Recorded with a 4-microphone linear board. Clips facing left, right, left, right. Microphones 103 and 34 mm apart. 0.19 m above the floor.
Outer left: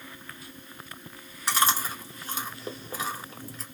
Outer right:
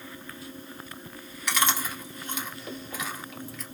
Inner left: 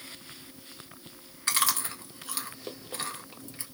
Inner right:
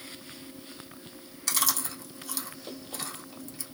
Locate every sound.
1.5 s chewing: 30° left (ahead or behind), 1.1 m